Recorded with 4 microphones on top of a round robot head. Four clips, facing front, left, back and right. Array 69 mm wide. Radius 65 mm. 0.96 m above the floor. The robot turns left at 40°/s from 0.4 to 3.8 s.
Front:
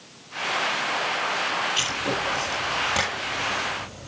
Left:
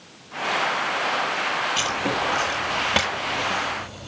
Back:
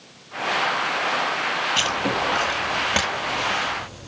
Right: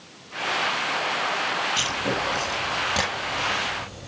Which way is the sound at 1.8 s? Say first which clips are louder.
Left 2 dB, back 4 dB; 175° left.